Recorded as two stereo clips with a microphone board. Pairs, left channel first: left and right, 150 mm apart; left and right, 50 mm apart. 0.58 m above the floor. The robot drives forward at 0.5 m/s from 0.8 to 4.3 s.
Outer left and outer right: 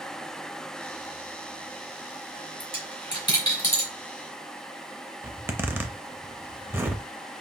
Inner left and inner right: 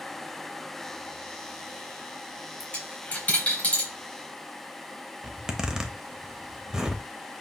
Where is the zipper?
15° right (ahead or behind), 0.6 m.